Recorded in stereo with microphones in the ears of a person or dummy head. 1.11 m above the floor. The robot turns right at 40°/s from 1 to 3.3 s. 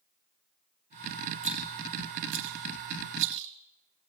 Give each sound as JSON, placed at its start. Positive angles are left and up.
{"t": 1.4, "sound": "a rattle", "side_deg": -40, "distance_m": 3.5}